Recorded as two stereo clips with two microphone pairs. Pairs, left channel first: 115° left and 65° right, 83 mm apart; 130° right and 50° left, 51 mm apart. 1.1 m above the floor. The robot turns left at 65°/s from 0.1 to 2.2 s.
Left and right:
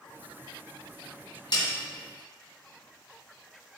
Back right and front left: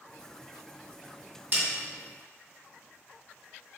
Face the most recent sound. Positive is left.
turn(degrees=55)